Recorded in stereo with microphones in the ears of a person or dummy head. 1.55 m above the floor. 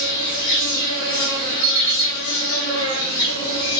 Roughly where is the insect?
Left.